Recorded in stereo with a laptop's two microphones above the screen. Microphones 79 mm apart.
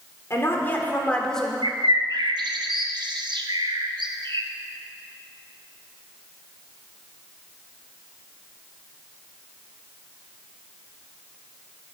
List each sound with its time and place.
0.3 s a woman speaking: 35° left (ahead or behind), 3 m; by 1.5 s 5° left (ahead or behind), 3 m
1.6 s a bird: 70° right (ahead or behind), 0.8 m